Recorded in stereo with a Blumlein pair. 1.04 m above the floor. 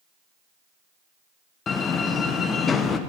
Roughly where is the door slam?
Ahead.